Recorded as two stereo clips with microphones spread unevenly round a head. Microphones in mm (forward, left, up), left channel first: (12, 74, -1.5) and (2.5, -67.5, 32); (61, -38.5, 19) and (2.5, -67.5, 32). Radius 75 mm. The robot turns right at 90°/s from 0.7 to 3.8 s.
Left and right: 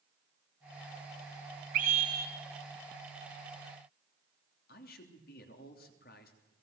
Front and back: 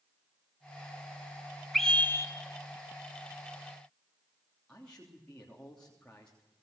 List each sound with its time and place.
1.7 s a scream: 65° right, 3.5 m; by 2.3 s 10° right, 3.5 m
4.7 s a man speaking: 110° left, 3 m